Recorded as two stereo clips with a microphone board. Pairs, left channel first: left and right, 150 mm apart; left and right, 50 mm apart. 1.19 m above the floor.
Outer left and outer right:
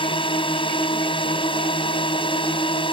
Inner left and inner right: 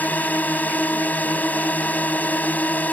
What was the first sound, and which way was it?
A drone, 35° left (ahead or behind).